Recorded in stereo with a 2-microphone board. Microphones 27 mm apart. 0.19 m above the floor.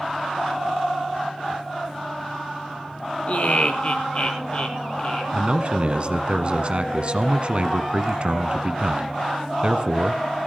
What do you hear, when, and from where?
3.3 s laughter: 55° left (ahead or behind), 2.5 m; by 5.2 s 35° left (ahead or behind), 4.5 m
5.3 s a man speaking: 45° right (ahead or behind), 1.3 m